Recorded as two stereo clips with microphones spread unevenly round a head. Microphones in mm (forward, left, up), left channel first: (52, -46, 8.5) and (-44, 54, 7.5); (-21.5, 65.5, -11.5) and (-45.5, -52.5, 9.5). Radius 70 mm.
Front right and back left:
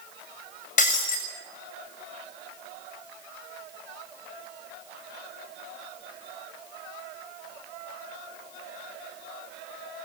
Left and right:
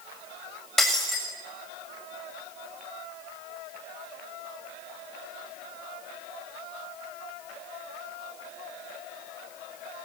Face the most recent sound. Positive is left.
turn(degrees=-10)